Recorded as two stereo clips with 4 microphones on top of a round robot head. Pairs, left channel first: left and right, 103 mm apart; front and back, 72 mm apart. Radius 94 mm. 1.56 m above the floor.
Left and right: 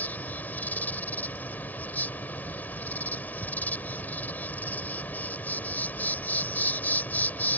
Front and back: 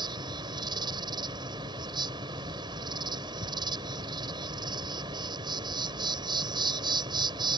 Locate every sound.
0.0 s an insect: 165° left